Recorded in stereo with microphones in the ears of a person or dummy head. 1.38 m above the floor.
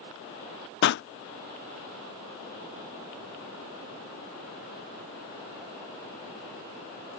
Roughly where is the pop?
Left.